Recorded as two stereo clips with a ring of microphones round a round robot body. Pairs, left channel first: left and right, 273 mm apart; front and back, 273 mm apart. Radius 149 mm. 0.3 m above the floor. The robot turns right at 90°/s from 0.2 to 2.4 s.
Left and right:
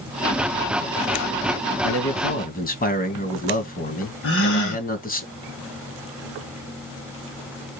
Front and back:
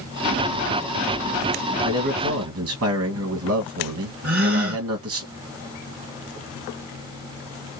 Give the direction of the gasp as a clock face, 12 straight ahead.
8 o'clock.